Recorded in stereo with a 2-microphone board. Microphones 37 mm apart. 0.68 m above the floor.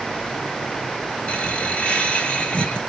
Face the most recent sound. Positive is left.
turn(degrees=40)  # may be behind; listen again after turning